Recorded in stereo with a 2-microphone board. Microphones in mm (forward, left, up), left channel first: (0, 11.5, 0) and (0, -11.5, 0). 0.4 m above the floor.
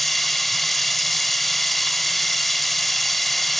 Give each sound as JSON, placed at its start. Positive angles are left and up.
{"t": 0.0, "sound": "running water", "side_deg": 10, "distance_m": 1.2}